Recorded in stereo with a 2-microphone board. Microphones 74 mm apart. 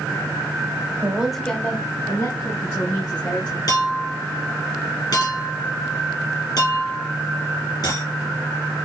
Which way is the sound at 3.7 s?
65° left (ahead or behind).